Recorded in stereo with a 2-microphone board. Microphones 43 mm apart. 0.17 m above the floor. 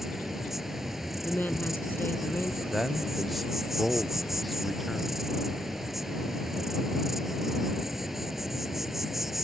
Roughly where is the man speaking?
Centre.